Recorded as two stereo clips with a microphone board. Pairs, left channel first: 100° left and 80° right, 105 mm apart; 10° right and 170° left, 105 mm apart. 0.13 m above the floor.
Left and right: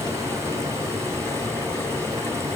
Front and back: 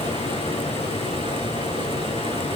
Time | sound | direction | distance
0.0 | running water | 15° right | 6 m